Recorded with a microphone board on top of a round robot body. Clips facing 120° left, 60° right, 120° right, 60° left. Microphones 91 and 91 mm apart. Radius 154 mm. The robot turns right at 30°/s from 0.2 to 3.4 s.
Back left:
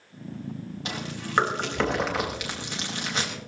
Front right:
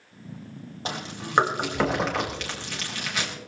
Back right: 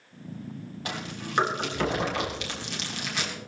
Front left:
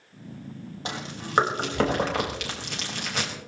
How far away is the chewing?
About 4 m.